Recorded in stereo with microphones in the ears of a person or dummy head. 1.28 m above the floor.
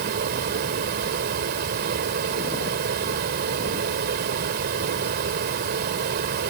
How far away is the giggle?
No giggle in this recording.